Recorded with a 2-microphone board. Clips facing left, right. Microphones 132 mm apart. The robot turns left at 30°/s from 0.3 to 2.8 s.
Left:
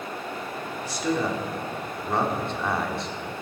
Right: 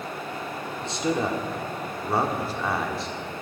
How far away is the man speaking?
About 1.3 m.